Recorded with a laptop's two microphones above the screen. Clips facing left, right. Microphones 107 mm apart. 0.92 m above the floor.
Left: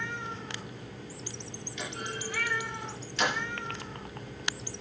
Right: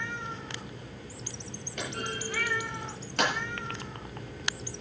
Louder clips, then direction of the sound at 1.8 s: Right 3 dB; 55° right (ahead or behind).